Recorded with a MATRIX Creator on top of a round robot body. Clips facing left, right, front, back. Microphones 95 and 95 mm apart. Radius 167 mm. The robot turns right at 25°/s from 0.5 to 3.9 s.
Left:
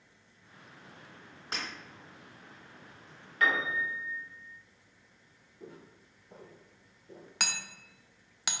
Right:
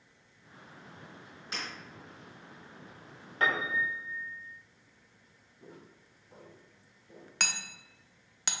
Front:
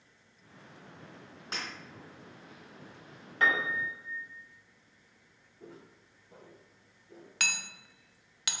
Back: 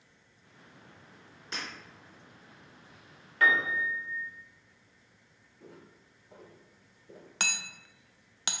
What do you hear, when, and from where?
1.5 s breaking glass: 40° left, 1.8 m; by 1.7 s 45° left, 1.8 m
3.4 s a piano: 50° right, 1.5 m; by 4.3 s 40° right, 1.5 m
5.6 s footsteps: 80° left, 1.1 m; by 7.3 s 155° left, 1.0 m
7.4 s hammering: 175° left, 0.6 m